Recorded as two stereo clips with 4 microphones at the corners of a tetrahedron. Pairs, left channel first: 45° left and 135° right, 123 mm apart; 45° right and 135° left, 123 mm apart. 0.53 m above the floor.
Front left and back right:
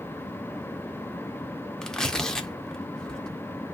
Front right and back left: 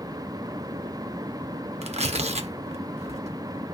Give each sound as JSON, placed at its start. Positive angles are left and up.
{"t": 1.8, "sound": "tearing paper", "azimuth_deg": 130, "distance_m": 0.6}